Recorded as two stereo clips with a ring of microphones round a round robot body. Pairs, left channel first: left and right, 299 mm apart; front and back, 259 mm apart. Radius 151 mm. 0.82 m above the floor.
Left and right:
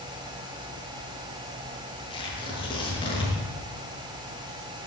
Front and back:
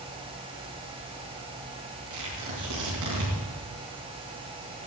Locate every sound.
2.1 s tearing paper: 165° left, 6 m